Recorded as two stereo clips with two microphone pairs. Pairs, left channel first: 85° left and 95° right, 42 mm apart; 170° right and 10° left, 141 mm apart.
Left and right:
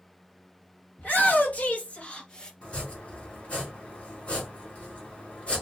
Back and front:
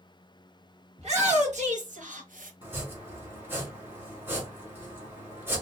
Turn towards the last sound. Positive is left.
turn(degrees=70)